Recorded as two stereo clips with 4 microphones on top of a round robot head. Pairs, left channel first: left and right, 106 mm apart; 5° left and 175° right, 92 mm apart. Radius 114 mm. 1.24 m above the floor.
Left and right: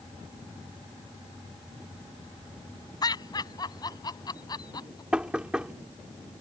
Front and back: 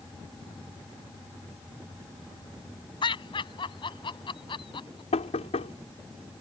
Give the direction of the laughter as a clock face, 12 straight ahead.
11 o'clock.